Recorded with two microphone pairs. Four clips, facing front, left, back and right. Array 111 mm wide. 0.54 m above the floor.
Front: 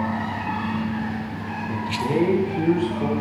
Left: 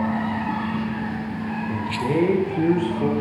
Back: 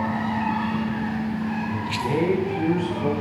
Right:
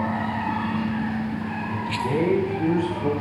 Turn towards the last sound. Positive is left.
turn(degrees=60)